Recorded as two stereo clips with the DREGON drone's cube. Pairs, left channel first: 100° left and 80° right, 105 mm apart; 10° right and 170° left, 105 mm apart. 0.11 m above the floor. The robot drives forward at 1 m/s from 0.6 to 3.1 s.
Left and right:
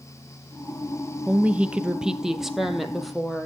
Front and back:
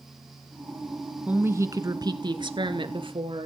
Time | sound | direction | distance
1.3 | a woman speaking | 130° right | 1.2 m